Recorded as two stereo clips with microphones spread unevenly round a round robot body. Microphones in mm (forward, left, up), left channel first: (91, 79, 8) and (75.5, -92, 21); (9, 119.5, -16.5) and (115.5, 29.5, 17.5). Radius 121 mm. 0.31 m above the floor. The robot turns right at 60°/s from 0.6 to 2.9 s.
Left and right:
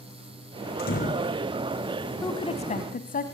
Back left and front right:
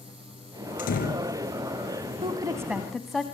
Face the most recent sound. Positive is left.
turn(degrees=55)